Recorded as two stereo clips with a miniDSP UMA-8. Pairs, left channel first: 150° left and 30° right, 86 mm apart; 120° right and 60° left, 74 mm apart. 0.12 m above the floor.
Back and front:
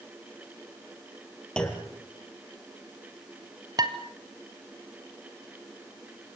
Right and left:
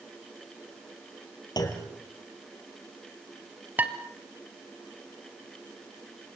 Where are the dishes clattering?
Straight ahead, 1.8 m.